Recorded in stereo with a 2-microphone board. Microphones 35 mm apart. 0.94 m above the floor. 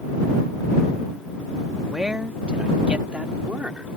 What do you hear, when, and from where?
1.9 s a man speaking: 20° right (ahead or behind); by 3.9 s 40° right (ahead or behind)